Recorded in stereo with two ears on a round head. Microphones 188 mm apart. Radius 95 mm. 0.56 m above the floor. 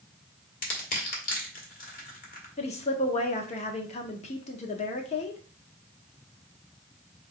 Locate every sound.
0.6 s crushing: 45° left (ahead or behind), 1.7 m
2.6 s a woman speaking: 35° left (ahead or behind), 0.9 m